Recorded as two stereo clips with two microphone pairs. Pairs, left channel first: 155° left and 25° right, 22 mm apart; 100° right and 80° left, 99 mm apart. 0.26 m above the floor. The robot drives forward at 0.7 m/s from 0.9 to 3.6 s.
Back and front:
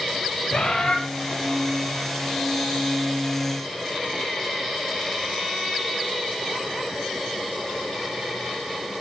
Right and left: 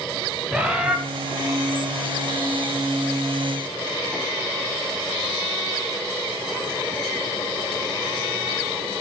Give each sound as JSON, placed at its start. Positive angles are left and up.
{"t": 0.5, "sound": "a bird", "azimuth_deg": 155, "distance_m": 1.6}